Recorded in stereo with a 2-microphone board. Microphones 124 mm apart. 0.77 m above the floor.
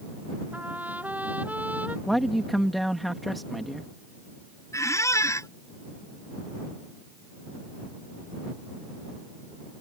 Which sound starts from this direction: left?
A squeak, at 4.7 s.